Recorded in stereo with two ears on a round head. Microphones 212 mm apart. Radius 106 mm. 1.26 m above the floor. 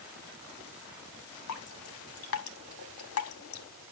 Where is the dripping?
65° left (ahead or behind), 1.3 m.